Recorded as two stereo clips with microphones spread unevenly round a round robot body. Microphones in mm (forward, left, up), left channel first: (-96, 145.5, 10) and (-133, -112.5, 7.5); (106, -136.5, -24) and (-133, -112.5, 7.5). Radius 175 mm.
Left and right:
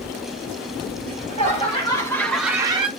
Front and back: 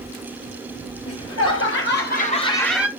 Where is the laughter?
15° left, 3 m; by 2.9 s 100° right, 1.2 m.